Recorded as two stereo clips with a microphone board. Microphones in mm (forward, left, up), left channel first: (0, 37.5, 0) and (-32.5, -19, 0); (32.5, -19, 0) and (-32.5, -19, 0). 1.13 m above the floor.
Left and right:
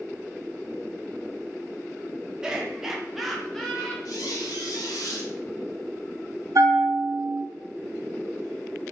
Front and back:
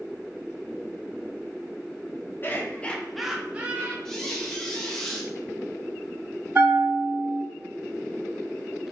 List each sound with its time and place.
2.4 s laughter: 45° right, 0.8 m; by 4.0 s 140° left, 0.7 m
4.0 s a squeak: 80° left, 0.9 m
6.5 s a bell: 110° right, 1.7 m